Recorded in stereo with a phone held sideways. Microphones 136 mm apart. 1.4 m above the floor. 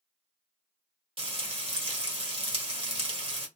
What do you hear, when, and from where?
1.2 s frying: 45° right (ahead or behind), 1.4 m